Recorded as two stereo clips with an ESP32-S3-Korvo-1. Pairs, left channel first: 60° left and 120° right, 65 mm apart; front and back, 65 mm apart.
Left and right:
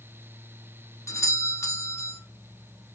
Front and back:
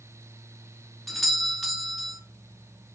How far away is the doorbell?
About 0.8 m.